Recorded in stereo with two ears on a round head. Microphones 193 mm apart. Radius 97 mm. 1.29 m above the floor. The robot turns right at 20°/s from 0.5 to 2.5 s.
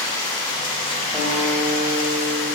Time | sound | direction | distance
0.0 | running water | 25° left | 2.5 m
1.1 | a guitar | centre (ahead or behind) | 4 m